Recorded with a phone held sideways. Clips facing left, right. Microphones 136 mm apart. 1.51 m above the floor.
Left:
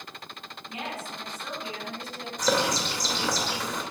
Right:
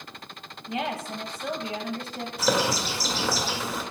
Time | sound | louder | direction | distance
0.7 | a woman speaking | right 6 dB | 85° right | 2.5 m
2.4 | a bird | right 1 dB | 5° right (ahead or behind) | 2 m